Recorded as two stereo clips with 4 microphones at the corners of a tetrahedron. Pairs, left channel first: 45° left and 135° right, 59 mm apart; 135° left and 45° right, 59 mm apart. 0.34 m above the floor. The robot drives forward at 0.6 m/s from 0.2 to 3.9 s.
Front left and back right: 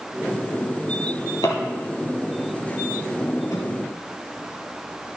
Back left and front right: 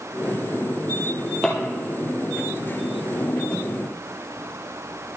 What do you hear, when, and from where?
1.0 s a drawer: 50° left, 4.5 m; by 3.6 s 70° left, 4 m